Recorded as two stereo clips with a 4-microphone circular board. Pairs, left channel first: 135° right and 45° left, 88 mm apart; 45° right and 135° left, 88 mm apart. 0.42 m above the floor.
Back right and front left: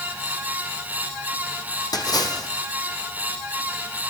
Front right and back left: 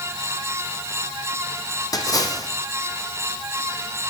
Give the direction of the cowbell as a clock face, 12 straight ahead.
No cowbell in this recording.